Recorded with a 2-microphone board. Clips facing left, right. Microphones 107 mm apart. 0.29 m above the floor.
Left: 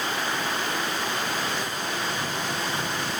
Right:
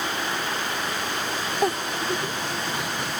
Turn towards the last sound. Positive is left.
turn(degrees=-65)  # may be behind; listen again after turning